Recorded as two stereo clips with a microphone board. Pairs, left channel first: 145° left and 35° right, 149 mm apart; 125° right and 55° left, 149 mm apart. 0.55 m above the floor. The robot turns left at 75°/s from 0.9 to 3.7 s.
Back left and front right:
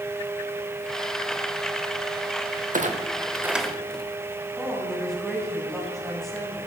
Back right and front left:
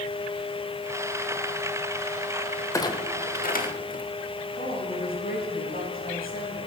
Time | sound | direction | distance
2.7 | a clunk | 55° right | 1.1 m
4.6 | a woman speaking | 125° right | 4.5 m